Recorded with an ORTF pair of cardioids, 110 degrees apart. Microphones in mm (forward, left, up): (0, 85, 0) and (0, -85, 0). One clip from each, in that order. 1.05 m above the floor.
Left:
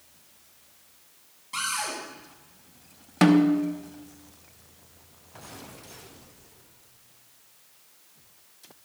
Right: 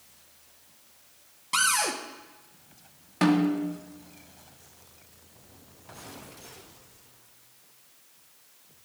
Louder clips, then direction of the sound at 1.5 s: Right 5 dB; 55° right.